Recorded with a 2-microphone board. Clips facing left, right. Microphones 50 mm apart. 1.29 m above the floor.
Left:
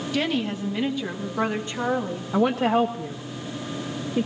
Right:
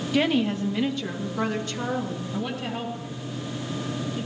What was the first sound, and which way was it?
A woman speaking, 10° right (ahead or behind).